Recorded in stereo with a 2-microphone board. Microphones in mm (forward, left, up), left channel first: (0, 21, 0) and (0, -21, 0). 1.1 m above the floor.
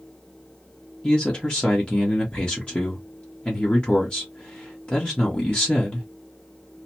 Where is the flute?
No flute in this recording.